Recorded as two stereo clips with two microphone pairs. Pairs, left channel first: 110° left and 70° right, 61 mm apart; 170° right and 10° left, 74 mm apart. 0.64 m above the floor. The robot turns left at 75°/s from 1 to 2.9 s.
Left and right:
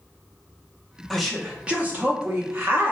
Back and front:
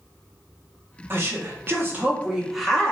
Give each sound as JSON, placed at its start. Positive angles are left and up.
{"t": 1.1, "sound": "a woman speaking", "azimuth_deg": 35, "distance_m": 0.6}